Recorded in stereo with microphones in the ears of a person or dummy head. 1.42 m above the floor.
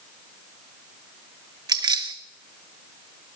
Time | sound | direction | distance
1.7 | keys jangling | 25° right (ahead or behind) | 0.6 m